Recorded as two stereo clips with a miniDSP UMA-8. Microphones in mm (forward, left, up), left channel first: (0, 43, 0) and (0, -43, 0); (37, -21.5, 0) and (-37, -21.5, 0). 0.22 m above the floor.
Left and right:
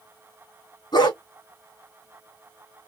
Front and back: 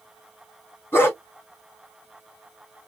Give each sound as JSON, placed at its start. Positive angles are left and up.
{"t": 0.9, "sound": "a dog barking", "azimuth_deg": 60, "distance_m": 4.5}